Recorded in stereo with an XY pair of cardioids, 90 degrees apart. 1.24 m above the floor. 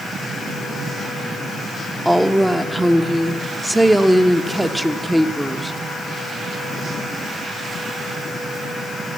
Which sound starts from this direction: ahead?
A woman speaking, at 2.0 s.